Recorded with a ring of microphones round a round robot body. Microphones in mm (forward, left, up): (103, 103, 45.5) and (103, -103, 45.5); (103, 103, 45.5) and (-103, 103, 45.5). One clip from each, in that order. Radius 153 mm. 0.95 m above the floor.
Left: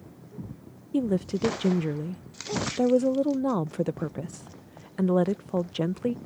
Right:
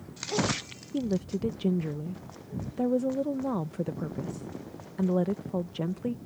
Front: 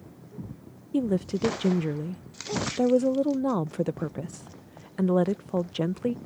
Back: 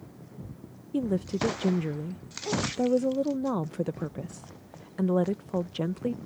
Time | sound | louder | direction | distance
0.9 | a woman speaking | left 4 dB, front 2 dB | 65° left | ?